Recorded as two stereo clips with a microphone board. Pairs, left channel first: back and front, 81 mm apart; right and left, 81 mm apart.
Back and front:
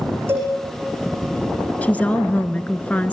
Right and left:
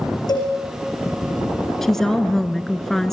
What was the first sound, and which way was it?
A cowbell, 60° right.